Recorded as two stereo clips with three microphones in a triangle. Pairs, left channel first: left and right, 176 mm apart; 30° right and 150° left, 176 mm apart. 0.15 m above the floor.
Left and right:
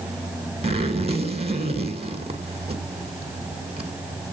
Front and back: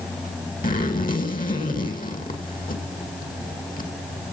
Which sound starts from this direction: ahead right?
A zipper, at 0.6 s.